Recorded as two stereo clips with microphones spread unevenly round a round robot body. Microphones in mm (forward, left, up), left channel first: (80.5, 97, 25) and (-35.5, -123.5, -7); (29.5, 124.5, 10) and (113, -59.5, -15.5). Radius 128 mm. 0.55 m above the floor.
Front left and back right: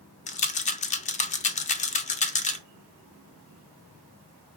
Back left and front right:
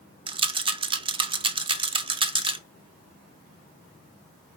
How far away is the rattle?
About 0.6 m.